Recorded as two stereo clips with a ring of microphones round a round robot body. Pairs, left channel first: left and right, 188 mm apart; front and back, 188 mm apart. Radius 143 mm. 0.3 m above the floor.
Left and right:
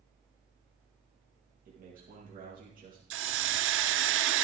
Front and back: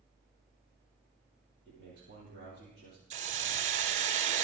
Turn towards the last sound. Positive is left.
turn(degrees=-120)